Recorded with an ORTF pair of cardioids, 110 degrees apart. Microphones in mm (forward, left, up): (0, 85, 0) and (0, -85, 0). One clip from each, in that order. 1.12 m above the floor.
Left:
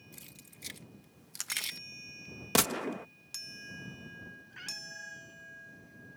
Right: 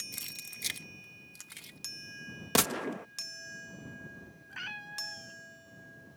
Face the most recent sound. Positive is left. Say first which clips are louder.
# right 4 dB
turn(degrees=-40)